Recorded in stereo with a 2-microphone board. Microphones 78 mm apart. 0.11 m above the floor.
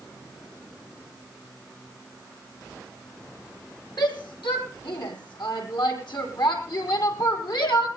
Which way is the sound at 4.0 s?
70° left (ahead or behind).